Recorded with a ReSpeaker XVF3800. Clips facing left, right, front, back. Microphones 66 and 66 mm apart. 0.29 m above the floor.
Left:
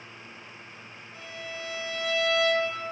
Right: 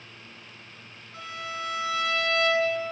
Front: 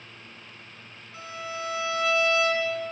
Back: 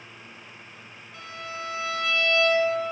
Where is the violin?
75° right, 4 m.